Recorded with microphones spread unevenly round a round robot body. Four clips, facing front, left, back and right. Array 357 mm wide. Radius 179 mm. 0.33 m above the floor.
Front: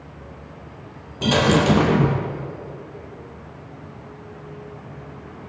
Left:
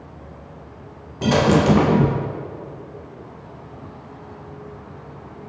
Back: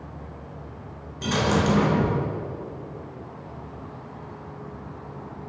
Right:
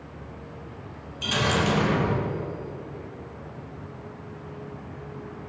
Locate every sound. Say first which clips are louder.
1.2 s a dropped coin: left 9 dB, front 5 dB; 60° left, 3.5 m